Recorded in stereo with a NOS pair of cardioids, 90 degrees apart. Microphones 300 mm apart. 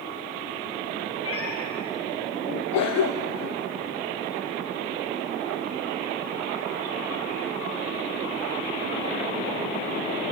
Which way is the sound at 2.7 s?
65° left.